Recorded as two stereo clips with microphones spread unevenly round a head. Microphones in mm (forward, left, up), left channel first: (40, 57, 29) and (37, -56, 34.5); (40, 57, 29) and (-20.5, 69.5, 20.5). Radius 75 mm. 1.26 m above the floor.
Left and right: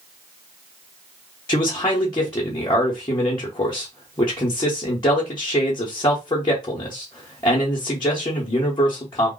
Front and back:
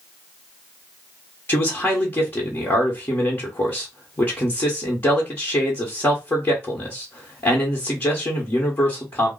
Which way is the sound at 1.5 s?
40° left.